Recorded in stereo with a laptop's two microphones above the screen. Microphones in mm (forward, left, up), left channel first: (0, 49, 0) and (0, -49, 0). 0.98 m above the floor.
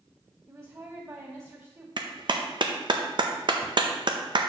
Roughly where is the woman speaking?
Right.